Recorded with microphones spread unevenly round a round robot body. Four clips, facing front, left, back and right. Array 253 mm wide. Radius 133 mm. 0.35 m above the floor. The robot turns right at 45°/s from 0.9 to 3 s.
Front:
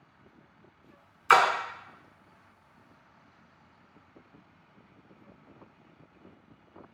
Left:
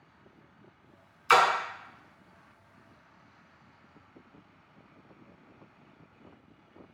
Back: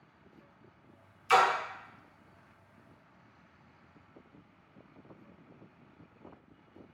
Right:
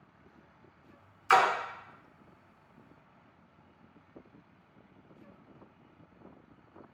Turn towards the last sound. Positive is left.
turn(degrees=100)